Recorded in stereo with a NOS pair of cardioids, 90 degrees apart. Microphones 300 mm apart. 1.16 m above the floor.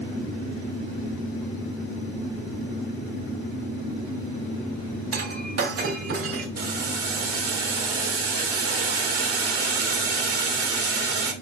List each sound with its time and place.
5.1 s breaking glass: 55° right, 2.5 m
6.6 s boiling: 50° right, 2.5 m